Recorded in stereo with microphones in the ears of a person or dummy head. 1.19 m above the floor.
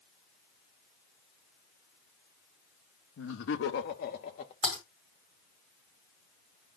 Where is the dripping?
No dripping in this recording.